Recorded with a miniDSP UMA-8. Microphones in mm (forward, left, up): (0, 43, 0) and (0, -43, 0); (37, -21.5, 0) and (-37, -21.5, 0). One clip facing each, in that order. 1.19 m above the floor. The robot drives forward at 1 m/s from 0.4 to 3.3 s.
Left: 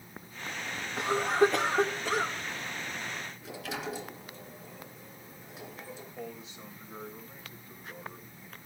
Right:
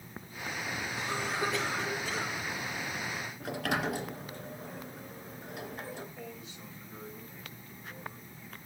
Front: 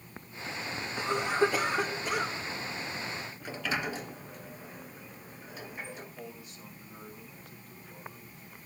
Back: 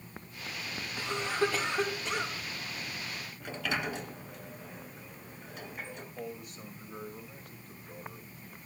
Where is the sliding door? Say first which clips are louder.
Right 8 dB, even; 85° right, 2.5 m.